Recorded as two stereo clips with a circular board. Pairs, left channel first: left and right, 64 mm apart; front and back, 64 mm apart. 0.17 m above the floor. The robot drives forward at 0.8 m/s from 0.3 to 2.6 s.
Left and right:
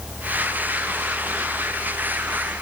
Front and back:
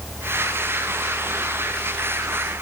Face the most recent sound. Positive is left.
No sound to turn to.